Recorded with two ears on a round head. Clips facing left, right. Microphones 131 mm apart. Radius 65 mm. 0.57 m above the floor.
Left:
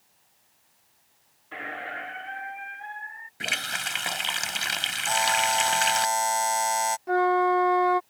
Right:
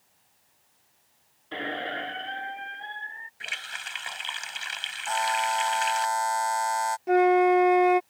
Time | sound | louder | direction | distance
1.5 | a squeak | right 4 dB | 40° right (ahead or behind) | ?
3.4 | a running tap | left 9 dB | 65° left (ahead or behind) | ?
5.1 | a buzzer | left 1 dB | 25° left (ahead or behind) | ?
7.1 | a flute | right 3 dB | 25° right (ahead or behind) | ?